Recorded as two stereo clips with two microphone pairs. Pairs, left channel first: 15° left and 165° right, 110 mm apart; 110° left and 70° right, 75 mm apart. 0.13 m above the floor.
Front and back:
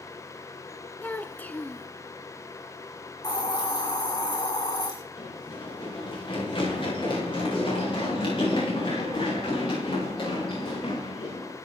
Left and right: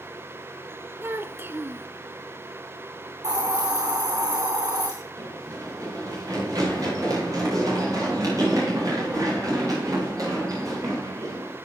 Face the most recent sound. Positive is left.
turn(degrees=-30)